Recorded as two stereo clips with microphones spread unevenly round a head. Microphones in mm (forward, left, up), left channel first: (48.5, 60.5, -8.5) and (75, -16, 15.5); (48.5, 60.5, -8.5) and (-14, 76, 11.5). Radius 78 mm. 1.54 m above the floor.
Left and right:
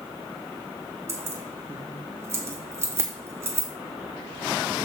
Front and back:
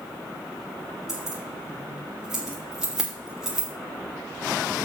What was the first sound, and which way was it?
Keys jangling, 120° right.